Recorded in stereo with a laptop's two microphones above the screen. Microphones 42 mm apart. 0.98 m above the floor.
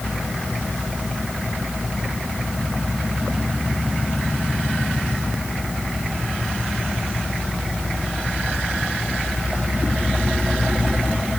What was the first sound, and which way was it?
Only background noise.